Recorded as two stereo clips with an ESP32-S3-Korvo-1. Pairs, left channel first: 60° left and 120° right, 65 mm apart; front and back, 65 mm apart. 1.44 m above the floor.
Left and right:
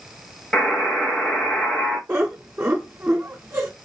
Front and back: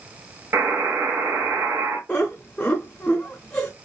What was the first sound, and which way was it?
A buzzer, 130° left.